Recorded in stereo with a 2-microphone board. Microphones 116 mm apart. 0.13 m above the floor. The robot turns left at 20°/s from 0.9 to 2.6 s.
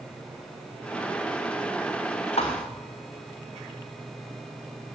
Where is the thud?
65° left (ahead or behind), 3.5 m; by 2.7 s 70° left (ahead or behind), 3.5 m.